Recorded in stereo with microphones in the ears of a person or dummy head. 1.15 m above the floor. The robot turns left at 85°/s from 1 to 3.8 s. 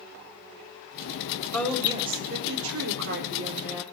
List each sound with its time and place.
1.5 s a woman speaking: 15° left, 4 m; by 3.8 s 175° right, 4 m